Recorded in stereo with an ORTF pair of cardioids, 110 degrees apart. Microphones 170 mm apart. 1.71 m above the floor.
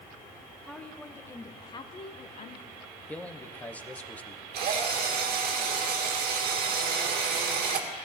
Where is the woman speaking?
5° left, 1.6 m; by 2.7 s 55° left, 1.2 m.